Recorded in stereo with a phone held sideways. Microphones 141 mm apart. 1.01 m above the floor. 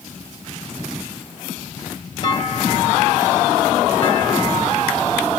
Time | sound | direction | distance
2.2 | a clunk | 35° left (ahead or behind) | 2 m